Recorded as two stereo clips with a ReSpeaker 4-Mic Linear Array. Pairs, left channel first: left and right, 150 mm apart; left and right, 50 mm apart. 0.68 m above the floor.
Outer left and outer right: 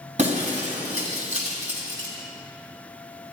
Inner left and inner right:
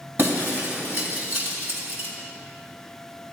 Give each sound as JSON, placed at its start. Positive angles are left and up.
{"t": 0.2, "sound": "breaking glass", "side_deg": -50, "distance_m": 3.5}